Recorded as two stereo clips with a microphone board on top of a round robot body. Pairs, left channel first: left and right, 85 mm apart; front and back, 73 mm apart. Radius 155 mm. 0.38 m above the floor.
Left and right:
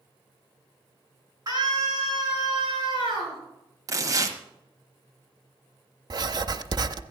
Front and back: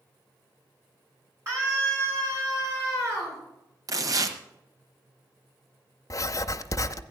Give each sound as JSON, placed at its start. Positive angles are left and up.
{"t": 1.5, "sound": "a scream", "azimuth_deg": -130, "distance_m": 6.5}
{"t": 3.9, "sound": "tearing paper", "azimuth_deg": -140, "distance_m": 1.2}
{"t": 6.1, "sound": "writing", "azimuth_deg": -50, "distance_m": 0.6}